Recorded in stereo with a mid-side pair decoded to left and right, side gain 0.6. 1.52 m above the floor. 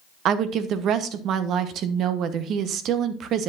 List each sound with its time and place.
0.2 s a woman speaking: 55° right, 1.0 m